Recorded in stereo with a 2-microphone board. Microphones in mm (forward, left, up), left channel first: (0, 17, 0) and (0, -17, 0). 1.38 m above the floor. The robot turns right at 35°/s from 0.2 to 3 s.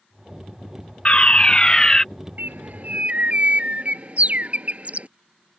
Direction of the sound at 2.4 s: 60° right (ahead or behind).